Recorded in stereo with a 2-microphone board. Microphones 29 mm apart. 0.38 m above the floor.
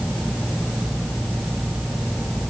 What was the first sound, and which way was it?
Only background noise.